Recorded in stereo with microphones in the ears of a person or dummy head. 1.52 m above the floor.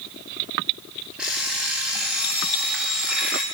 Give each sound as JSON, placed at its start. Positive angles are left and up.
{"t": 1.2, "sound": "an alarm clock", "side_deg": -5, "distance_m": 6.0}